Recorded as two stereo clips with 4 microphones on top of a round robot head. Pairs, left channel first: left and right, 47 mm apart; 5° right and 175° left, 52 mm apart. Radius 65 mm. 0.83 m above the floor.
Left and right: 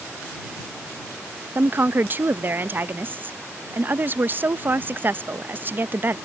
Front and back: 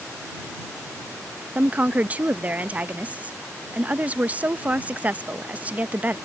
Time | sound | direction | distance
1.6 | a woman speaking | 130° right | ?